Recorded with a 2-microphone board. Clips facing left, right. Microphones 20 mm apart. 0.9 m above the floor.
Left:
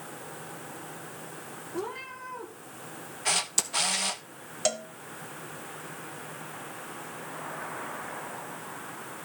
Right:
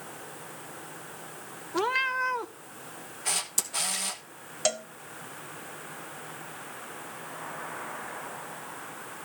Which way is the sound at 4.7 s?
5° right (ahead or behind).